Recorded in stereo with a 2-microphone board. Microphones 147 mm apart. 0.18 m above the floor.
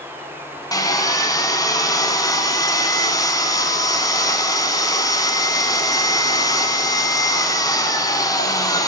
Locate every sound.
0.7 s sawing: 25° left (ahead or behind), 1.7 m